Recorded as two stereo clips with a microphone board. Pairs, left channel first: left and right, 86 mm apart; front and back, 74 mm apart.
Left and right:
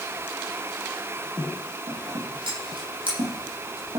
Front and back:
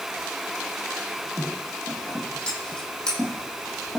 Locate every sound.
1.9 s scissors: 80° right, 10 m